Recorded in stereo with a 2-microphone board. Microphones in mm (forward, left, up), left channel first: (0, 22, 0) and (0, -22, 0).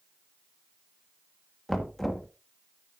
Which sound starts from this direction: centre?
Knocking, at 1.7 s.